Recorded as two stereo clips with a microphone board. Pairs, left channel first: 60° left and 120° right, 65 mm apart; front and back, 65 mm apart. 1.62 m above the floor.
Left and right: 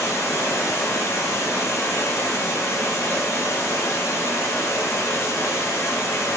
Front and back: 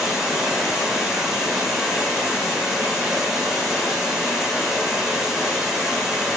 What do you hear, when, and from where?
0.0 s running water: 95° left, 2 m